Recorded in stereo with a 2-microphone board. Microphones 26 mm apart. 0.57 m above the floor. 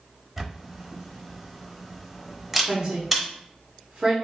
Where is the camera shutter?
5° right (ahead or behind), 0.7 m.